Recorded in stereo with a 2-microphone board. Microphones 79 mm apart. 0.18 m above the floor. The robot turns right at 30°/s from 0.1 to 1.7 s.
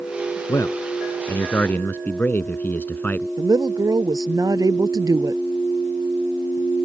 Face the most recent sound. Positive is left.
turn(degrees=-50)  # may be behind; listen again after turning